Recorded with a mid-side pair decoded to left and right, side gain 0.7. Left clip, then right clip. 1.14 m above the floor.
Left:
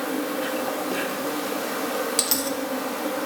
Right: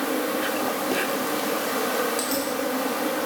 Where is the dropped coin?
45° left, 1.4 m.